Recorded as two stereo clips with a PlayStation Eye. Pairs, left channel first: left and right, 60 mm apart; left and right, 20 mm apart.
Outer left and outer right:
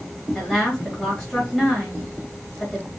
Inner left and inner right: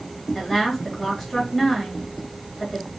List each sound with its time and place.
0.3 s a woman speaking: 10° left (ahead or behind), 2 m